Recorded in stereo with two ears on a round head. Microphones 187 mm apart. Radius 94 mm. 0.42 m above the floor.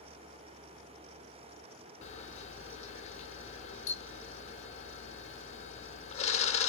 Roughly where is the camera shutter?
Left.